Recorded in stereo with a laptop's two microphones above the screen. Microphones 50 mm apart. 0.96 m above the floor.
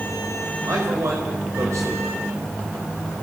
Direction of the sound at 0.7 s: 80° right.